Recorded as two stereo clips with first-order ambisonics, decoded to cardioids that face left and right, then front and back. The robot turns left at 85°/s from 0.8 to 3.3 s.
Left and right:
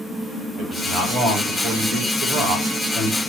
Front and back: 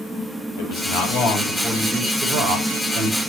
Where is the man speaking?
Straight ahead, 4.5 m; by 3.2 s 155° left, 4.5 m.